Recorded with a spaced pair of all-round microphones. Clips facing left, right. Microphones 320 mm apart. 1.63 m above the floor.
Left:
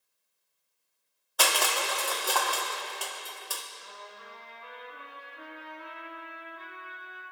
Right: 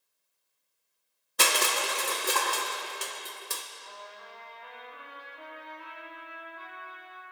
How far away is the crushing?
About 1.0 m.